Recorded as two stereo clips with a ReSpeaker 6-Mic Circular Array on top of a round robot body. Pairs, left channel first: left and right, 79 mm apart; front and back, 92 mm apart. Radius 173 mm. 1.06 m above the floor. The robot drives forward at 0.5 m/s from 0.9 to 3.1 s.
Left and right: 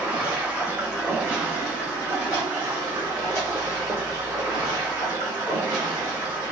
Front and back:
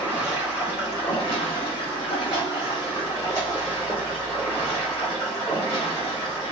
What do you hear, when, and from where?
0.0 s running water: 15° right, 1.5 m; by 6.5 s 65° right, 0.8 m